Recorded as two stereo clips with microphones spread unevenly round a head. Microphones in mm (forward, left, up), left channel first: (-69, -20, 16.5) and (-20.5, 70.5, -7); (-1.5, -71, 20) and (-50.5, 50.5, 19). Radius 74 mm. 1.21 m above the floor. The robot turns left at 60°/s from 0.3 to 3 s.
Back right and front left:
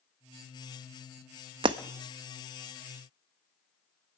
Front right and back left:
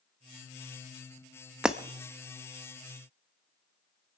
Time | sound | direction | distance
1.6 | breaking glass | 30° left | 0.6 m